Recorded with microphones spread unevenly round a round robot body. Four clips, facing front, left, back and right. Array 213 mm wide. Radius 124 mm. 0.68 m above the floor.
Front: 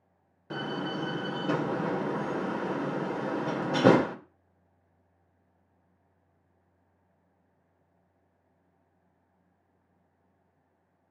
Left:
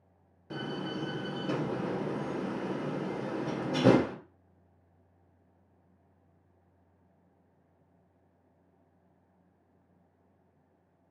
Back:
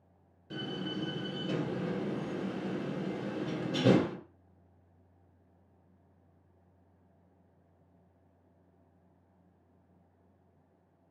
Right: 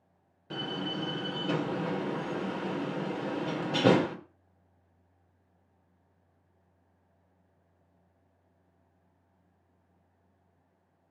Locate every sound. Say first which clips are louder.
0.5 s a door slam: right 1 dB, front 5 dB; 10° right, 2 m